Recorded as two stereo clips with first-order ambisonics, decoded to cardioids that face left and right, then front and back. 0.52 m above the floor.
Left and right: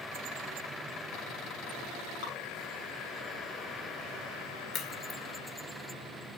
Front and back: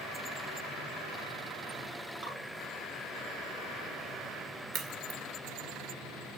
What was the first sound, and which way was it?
Dripping, 110° left.